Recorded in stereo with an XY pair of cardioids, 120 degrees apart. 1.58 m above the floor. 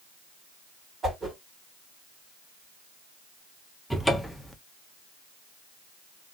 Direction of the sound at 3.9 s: 5° left.